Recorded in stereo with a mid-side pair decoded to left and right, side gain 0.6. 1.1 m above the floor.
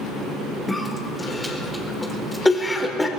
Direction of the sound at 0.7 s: 10° left.